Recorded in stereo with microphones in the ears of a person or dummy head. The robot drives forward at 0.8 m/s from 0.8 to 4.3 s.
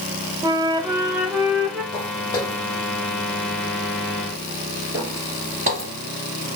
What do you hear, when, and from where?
0.4 s a flute: 15° right (ahead or behind), 0.7 m; by 1.8 s 10° right (ahead or behind), 1.5 m
1.9 s footsteps: 20° left (ahead or behind), 2.5 m; by 5.9 s 35° right (ahead or behind), 1.6 m